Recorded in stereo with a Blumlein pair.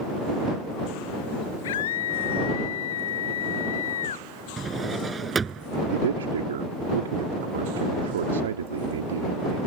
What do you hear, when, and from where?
1.6 s a scream: 55° left; by 4.3 s 65° left
4.6 s a drawer: 15° right
5.9 s a man speaking: 65° right